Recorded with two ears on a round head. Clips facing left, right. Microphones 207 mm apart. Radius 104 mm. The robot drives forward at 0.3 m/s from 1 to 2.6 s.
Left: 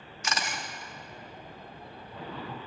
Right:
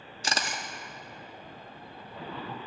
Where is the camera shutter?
30° right (ahead or behind), 0.9 m.